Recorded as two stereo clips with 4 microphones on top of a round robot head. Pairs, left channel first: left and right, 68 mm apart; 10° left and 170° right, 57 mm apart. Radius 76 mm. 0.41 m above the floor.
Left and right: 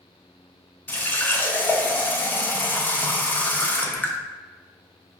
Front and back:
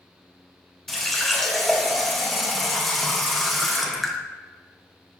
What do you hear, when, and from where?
0.9 s a running tap: 100° left, 0.6 m